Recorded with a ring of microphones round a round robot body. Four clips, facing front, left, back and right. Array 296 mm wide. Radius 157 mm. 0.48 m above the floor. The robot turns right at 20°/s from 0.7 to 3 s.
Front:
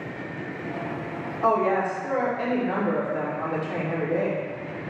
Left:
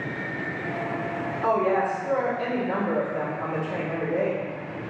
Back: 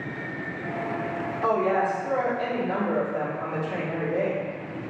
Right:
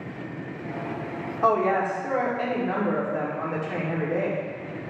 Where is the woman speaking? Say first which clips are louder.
Right 1 dB, front 1 dB; 85° right, 1.3 m; by 4.5 s 55° right, 1.3 m.